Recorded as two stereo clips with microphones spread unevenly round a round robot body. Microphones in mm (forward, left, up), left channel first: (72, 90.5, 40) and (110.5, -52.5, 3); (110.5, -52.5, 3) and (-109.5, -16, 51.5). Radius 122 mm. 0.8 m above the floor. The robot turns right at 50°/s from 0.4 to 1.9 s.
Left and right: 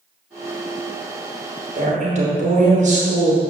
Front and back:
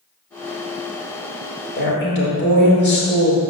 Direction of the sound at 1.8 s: 55° right.